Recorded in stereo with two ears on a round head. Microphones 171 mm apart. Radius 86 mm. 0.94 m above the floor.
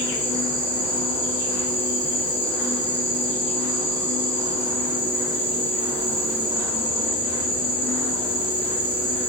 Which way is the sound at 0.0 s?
10° left (ahead or behind).